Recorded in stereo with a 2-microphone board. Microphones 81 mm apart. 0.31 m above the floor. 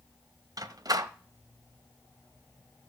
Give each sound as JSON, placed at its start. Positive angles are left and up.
{"t": 0.6, "sound": "a door slam", "side_deg": -50, "distance_m": 0.8}